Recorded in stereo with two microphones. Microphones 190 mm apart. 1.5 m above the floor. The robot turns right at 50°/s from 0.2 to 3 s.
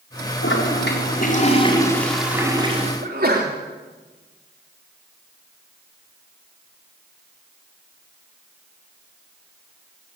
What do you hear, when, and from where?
0.4 s a toilet flushing: 90° left, 4.5 m; by 2.9 s 145° right, 4.5 m
3.0 s a sneeze: 55° right (ahead or behind), 3 m